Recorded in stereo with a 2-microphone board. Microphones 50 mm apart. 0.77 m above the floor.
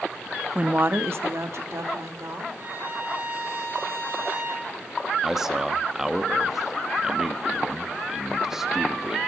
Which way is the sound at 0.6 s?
20° right (ahead or behind).